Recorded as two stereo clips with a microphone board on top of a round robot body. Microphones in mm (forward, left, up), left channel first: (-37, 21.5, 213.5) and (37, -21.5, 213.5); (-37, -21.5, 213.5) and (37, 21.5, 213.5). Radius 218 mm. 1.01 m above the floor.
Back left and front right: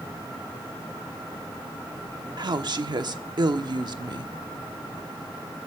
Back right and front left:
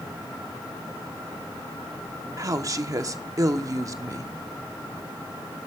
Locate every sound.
2.4 s a woman speaking: 10° right, 1.2 m